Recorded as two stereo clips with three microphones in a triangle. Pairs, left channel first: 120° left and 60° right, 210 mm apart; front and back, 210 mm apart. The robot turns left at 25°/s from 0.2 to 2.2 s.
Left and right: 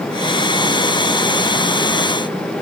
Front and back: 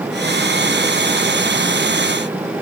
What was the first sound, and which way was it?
Only background noise.